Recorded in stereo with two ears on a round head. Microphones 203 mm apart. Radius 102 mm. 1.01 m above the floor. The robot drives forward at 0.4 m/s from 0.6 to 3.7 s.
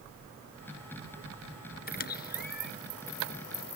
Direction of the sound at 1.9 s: 40° left (ahead or behind).